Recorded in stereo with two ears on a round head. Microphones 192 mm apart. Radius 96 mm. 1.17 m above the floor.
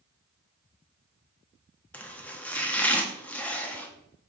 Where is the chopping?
5° left (ahead or behind), 0.8 m.